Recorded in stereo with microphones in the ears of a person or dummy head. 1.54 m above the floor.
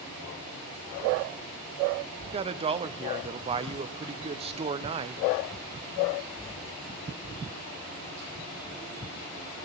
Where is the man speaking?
30° right (ahead or behind), 0.6 m.